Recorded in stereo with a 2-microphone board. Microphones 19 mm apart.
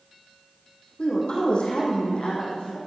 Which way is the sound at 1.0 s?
60° left (ahead or behind).